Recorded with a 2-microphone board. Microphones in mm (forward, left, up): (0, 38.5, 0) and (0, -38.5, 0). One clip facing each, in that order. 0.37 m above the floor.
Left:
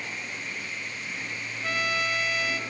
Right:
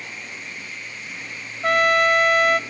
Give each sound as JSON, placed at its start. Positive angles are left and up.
{"t": 1.6, "sound": "a trumpet", "side_deg": -65, "distance_m": 0.6}